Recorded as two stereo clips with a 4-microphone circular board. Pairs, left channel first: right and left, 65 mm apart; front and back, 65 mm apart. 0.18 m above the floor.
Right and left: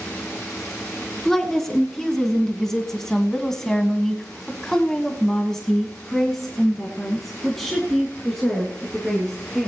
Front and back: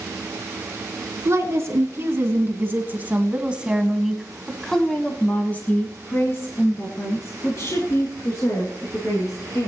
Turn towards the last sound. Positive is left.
turn(degrees=0)